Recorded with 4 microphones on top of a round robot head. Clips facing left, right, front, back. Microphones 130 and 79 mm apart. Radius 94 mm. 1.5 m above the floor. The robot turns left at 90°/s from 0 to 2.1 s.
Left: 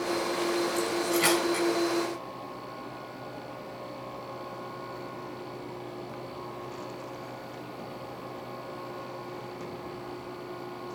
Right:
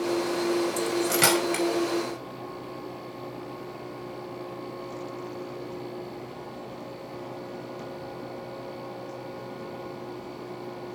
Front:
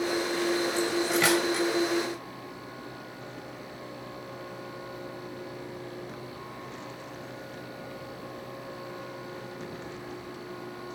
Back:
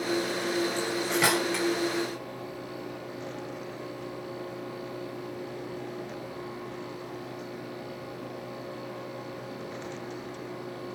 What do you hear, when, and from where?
0.8 s cutlery clinking: 50° right, 5.5 m; by 1.6 s 130° right, 5.5 m